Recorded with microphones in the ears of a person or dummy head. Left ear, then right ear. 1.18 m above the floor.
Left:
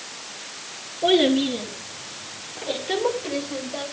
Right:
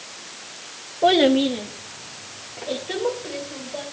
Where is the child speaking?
50° right (ahead or behind), 1.0 m; by 3.8 s 20° left (ahead or behind), 4 m.